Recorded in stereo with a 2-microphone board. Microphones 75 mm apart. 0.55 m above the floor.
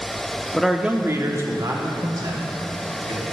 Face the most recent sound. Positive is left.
turn(degrees=-75)  # may be behind; listen again after turning